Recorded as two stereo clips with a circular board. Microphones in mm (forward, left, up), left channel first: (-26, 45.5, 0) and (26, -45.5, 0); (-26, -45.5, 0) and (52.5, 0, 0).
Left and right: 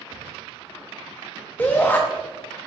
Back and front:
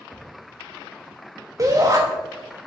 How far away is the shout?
About 0.7 m.